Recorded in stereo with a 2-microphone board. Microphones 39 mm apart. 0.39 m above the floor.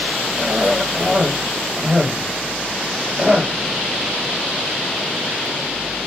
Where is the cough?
25° right (ahead or behind), 1.2 m.